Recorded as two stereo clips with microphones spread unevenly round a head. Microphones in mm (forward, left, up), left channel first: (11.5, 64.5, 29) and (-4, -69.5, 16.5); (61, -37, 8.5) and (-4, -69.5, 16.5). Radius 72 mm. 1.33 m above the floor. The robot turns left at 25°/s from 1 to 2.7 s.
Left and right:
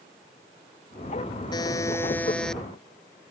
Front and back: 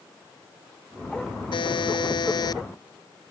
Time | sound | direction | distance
1.5 | a buzzer | 25° left | ?